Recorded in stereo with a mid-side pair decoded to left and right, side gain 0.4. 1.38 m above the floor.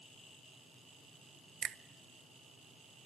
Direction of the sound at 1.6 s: 60° right.